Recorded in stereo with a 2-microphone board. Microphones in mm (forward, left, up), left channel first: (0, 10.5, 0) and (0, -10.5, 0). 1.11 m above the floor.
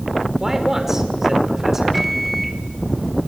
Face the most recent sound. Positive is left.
turn(degrees=0)  # may be behind; listen again after turning